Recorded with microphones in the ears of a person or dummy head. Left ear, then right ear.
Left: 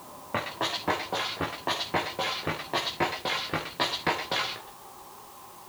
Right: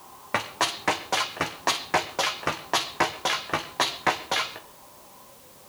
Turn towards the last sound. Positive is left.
turn(degrees=-25)  # may be behind; listen again after turning